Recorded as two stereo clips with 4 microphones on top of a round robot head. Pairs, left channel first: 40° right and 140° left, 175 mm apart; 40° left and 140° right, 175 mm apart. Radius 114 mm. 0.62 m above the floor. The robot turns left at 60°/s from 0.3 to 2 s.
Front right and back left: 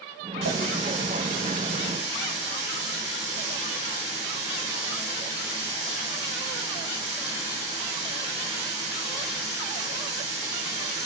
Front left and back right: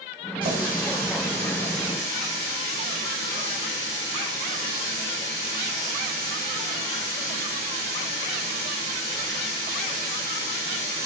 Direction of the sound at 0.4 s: 160° left.